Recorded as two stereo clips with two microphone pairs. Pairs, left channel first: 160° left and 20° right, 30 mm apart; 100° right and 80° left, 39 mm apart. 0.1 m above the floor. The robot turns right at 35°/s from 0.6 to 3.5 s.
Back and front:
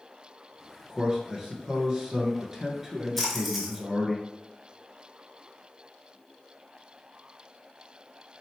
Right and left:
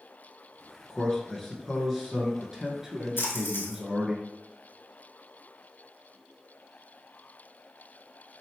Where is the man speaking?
40° right, 1.1 m; by 4.2 s 55° left, 1.1 m.